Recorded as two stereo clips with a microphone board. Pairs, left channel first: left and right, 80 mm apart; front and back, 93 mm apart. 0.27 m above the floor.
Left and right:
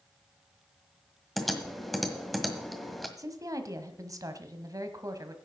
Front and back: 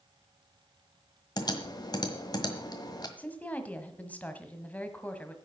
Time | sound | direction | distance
1.4 | typing on a keyboard | straight ahead | 1.6 m
3.2 | a woman speaking | 70° right | 1.4 m